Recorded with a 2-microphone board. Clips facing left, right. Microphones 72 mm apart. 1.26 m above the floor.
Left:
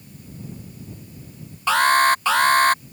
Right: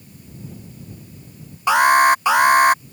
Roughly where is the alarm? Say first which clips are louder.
Right 3 dB; centre.